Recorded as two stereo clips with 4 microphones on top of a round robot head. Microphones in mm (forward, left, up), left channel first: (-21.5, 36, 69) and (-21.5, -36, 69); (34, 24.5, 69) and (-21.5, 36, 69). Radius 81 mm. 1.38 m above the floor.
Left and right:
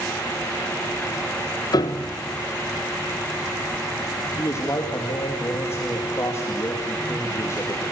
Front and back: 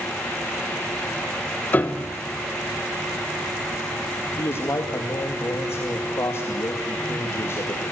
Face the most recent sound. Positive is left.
turn(degrees=35)